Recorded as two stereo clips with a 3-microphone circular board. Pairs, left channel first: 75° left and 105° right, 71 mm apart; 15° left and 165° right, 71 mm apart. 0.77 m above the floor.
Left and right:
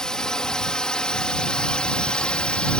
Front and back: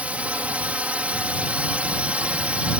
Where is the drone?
145° left; by 2.8 s 140° left.